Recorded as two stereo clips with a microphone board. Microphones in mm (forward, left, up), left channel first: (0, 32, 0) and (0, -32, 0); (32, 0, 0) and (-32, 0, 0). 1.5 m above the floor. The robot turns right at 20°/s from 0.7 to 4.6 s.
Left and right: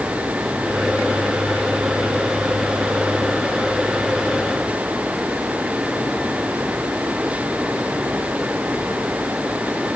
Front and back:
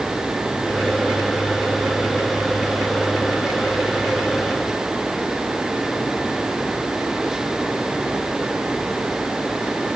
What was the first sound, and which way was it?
Only background noise.